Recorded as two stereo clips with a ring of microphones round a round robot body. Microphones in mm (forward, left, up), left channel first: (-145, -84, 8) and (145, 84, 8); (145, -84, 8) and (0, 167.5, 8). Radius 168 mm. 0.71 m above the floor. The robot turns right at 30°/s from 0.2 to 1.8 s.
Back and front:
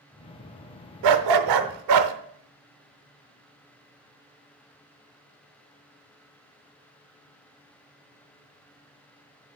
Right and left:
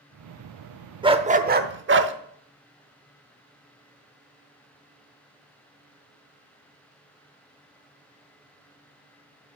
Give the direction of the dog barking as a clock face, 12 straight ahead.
11 o'clock.